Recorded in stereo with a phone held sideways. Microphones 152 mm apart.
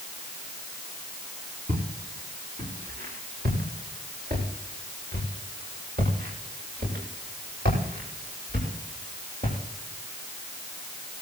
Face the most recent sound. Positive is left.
turn(degrees=-80)